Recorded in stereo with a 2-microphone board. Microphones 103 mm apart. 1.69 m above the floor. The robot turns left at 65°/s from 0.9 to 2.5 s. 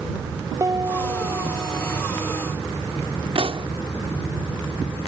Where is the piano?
55° right; by 2.0 s 130° right.